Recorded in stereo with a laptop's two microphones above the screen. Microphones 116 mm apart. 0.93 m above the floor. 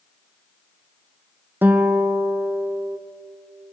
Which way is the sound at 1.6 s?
15° right (ahead or behind).